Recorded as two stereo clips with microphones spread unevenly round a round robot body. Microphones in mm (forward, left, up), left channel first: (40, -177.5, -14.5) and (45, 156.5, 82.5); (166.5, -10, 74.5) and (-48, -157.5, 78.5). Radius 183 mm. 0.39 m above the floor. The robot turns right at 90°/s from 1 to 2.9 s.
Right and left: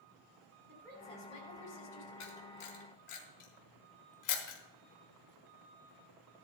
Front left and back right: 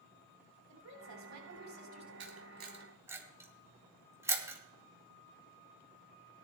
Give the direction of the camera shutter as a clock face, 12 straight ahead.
4 o'clock.